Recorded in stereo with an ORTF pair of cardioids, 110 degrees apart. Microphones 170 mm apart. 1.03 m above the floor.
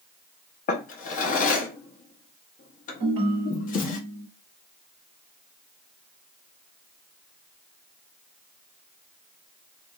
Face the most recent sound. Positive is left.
turn(degrees=-35)